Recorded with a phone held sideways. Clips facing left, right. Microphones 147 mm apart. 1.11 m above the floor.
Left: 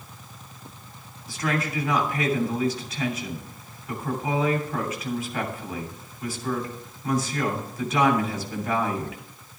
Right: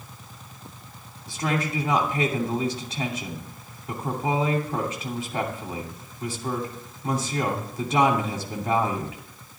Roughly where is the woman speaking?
Right.